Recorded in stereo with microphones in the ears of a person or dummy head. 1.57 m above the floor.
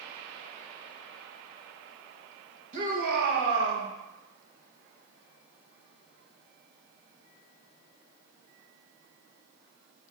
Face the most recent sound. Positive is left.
turn(degrees=-75)  # may be behind; listen again after turning